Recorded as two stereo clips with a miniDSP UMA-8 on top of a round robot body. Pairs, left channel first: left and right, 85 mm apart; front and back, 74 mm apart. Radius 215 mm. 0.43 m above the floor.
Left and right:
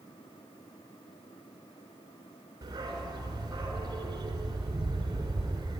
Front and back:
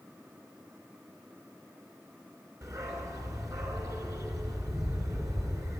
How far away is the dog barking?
About 3 m.